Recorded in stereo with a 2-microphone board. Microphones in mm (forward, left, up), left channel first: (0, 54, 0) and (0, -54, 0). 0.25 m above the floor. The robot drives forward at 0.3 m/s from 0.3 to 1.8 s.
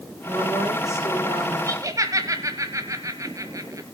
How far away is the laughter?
About 1.2 m.